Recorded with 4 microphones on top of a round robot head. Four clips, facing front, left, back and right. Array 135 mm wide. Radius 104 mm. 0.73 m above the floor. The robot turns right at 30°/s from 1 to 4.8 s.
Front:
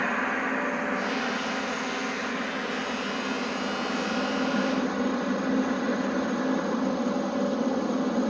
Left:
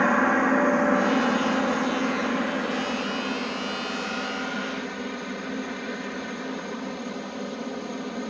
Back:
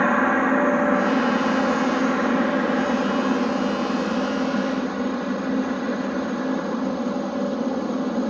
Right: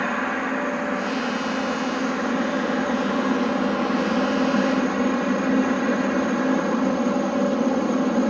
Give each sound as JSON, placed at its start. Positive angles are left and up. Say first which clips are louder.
{"t": 0.0, "sound": "a helicopter", "louder": "left 4 dB, back 9 dB", "azimuth_deg": 155}